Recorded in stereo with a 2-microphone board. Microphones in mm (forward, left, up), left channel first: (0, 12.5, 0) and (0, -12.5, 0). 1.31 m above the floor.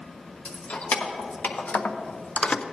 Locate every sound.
0.5 s keys jangling: 75° left (ahead or behind), 1.3 m; by 2.6 s 40° left (ahead or behind), 0.5 m